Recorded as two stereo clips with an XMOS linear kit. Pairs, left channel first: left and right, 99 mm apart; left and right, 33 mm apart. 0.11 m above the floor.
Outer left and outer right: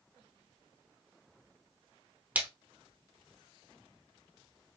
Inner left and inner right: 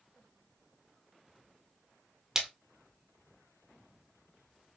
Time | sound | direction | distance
2.4 | a splash | 15° right (ahead or behind) | 1.0 m